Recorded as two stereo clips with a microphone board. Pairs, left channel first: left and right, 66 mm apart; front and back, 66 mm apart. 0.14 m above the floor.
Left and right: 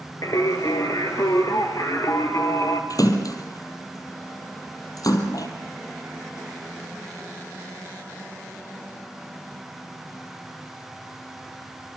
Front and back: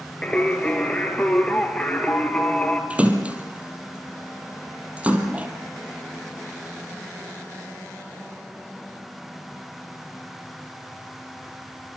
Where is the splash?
110° left, 3 m.